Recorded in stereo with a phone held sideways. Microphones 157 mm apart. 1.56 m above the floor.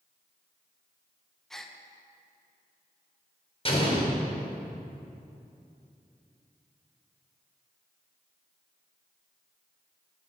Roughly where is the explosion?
Left.